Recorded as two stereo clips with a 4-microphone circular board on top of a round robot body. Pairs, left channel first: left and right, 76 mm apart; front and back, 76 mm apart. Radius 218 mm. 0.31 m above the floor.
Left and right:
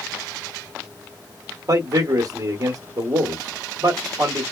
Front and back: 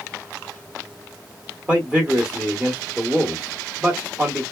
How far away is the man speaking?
About 1.4 m.